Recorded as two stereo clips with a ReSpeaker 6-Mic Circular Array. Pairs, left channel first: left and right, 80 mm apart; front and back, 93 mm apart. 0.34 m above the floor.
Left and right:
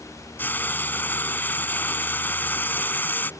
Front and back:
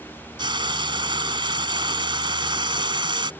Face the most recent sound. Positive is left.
turn(degrees=155)